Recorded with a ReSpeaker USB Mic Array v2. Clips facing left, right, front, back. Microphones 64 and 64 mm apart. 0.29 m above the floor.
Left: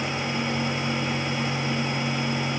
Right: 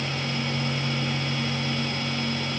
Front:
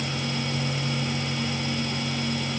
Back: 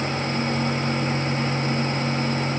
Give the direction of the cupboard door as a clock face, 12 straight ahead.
I don't hear a cupboard door.